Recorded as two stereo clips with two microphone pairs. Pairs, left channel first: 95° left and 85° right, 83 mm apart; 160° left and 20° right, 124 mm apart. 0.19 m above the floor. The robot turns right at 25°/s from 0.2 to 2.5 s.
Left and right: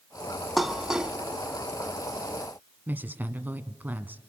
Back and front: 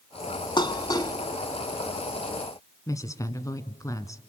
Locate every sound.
0.6 s dishes clattering: 175° right, 1.0 m; by 1.1 s 160° right, 1.0 m
2.9 s a woman speaking: 145° right, 1.4 m